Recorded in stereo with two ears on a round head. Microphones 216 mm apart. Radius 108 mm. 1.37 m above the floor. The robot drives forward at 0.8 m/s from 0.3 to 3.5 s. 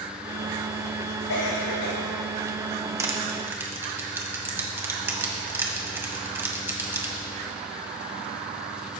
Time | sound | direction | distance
1.3 | a cough | 60° left (ahead or behind) | 4.5 m
3.0 | crushing | 10° right (ahead or behind) | 1.5 m